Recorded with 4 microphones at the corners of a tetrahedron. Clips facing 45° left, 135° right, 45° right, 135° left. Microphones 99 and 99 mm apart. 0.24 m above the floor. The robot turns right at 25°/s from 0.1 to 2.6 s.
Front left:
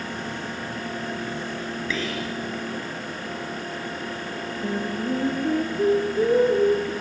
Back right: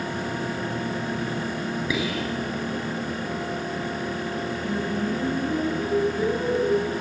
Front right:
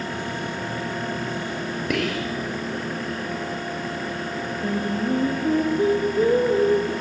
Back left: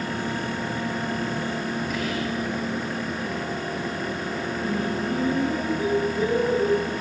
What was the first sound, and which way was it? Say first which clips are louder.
Whispering: back right 1 dB, front right 2 dB; 60° right.